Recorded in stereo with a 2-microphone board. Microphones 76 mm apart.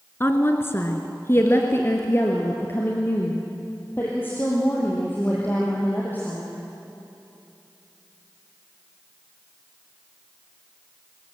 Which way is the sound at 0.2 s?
30° left (ahead or behind).